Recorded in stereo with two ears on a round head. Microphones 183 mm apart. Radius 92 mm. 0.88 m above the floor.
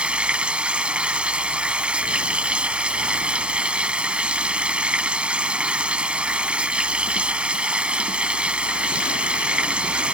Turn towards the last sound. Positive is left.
turn(degrees=-5)  # may be behind; listen again after turning